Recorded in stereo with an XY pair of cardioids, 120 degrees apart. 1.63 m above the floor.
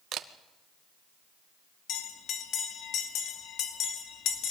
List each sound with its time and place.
0.1 s a camera shutter: 60° right, 1.5 m
1.9 s a bell: 70° left, 2.5 m